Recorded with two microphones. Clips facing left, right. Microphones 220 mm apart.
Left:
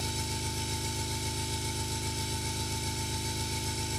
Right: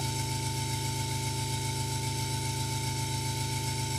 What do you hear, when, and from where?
0.0 s an engine running: 65° left (ahead or behind), 6 m